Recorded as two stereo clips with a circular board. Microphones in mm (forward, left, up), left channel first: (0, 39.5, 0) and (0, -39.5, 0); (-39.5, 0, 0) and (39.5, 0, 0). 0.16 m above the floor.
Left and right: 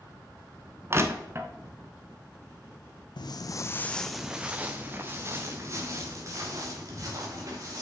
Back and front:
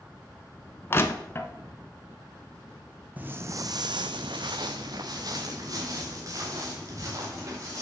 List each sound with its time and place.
0.9 s crushing: 130° right, 0.6 m
3.2 s footsteps: 70° left, 0.6 m; by 7.8 s 45° right, 3 m